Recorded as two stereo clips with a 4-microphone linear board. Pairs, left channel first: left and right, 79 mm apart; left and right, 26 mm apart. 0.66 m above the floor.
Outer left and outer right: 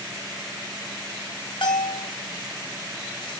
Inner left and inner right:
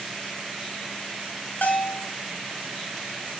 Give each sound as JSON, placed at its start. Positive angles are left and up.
{"t": 1.6, "sound": "a bell", "side_deg": 70, "distance_m": 0.9}